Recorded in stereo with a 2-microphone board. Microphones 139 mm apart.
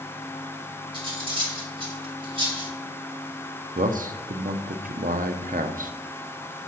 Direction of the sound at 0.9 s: 40° right (ahead or behind).